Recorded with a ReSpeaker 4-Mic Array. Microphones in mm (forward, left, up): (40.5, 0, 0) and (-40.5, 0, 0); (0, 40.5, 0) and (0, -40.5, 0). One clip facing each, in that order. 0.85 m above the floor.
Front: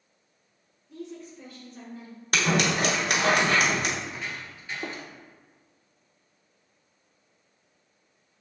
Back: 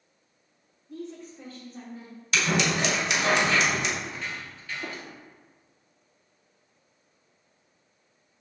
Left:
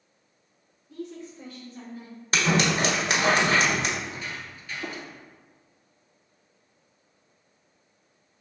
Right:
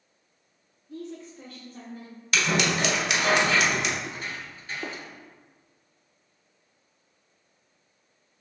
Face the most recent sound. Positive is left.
turn(degrees=-40)